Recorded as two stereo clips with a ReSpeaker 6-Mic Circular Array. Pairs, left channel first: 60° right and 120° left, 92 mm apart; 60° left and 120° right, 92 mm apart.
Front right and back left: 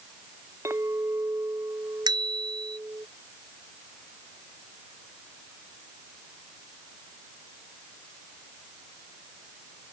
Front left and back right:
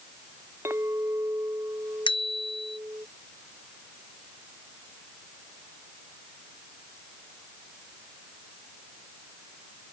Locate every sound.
0.7 s a clink: straight behind
2.1 s a bicycle bell: 80° left